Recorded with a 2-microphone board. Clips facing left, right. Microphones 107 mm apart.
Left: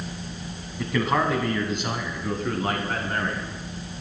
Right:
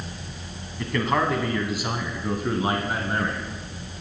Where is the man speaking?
5° left (ahead or behind), 1.2 m; by 3.5 s 15° right (ahead or behind), 1.8 m.